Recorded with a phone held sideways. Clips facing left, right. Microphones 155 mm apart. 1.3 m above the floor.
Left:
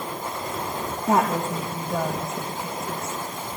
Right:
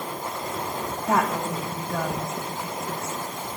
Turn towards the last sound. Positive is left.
turn(degrees=15)  # may be behind; listen again after turning